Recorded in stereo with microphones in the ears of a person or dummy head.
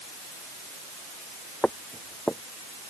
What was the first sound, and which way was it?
Footsteps, centre (ahead or behind).